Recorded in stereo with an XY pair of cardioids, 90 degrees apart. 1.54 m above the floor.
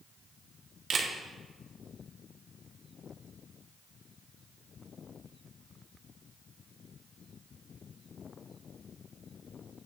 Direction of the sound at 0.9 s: 55° right.